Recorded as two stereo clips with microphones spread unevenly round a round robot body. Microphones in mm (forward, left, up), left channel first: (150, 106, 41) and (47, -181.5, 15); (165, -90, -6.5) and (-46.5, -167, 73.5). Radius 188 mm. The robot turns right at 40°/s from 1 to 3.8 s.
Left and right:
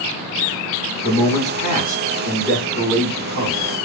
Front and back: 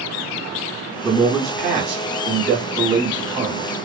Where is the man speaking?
20° left, 1.3 m; by 3.7 s 125° left, 1.3 m.